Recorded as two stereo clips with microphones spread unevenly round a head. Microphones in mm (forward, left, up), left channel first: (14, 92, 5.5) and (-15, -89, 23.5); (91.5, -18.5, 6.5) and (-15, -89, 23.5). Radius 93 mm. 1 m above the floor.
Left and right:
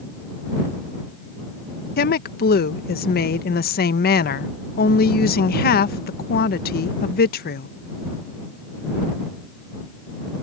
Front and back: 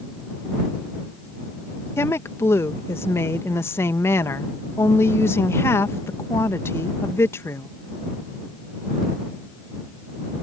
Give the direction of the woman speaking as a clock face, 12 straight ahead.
9 o'clock.